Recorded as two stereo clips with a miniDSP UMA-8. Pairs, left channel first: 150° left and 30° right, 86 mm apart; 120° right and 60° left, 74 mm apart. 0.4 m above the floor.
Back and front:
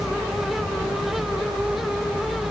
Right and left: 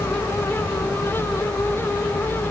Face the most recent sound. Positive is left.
No sound to turn to.